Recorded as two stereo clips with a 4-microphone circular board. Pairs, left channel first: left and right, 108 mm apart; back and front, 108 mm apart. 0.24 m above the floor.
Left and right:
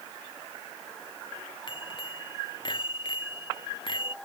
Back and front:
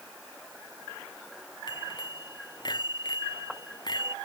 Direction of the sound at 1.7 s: 130° left.